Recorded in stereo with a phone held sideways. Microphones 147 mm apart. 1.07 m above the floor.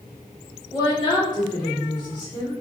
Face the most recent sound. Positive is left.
turn(degrees=30)  # may be behind; listen again after turning